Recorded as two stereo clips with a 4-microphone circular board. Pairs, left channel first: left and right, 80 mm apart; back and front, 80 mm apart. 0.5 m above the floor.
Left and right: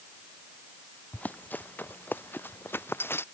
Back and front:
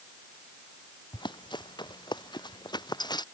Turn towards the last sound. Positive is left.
turn(degrees=150)